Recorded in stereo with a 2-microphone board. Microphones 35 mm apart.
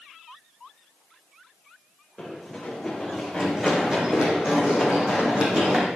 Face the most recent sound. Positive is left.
turn(degrees=-50)  # may be behind; listen again after turning